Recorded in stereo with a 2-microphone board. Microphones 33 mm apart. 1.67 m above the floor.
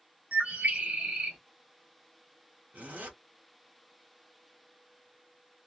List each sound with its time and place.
0.3 s a bird: 45° right (ahead or behind), 1.0 m
2.7 s a zipper: 45° right (ahead or behind), 1.5 m